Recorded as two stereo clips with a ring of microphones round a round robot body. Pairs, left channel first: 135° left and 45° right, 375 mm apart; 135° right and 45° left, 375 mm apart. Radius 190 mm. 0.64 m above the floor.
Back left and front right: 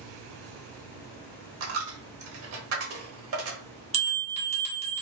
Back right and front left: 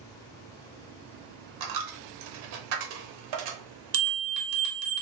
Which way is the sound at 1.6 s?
10° left.